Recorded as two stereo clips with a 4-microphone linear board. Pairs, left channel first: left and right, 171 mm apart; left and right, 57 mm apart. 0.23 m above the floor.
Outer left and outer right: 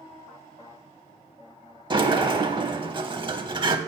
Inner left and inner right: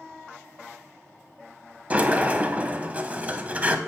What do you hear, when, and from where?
1.9 s a sliding door: 30° right (ahead or behind), 0.6 m